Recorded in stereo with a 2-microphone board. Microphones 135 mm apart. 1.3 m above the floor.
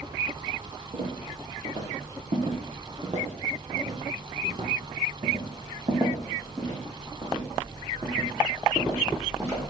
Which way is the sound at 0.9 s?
60° right (ahead or behind).